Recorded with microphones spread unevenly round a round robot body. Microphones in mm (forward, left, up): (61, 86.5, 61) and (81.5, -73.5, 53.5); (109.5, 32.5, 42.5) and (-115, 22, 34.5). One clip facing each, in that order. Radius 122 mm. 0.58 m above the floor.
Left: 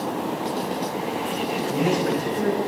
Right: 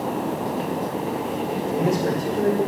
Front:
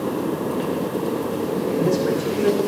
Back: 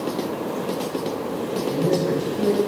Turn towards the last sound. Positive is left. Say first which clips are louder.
# even, front 1 dB
turn(degrees=-30)